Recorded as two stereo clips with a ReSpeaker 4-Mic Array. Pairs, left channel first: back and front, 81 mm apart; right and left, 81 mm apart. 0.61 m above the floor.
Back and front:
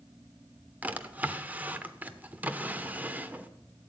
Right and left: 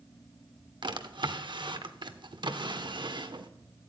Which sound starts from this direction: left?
A drawer, at 0.8 s.